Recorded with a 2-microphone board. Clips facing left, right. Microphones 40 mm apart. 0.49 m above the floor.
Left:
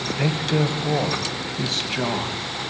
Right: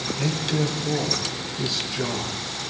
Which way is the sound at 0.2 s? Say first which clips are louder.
Left 3 dB; 40° left (ahead or behind).